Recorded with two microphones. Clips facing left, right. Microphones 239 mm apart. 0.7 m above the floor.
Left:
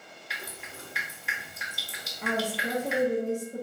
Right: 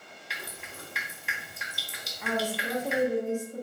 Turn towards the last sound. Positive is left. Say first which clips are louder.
# left 1 dB
turn(degrees=40)  # may be behind; listen again after turning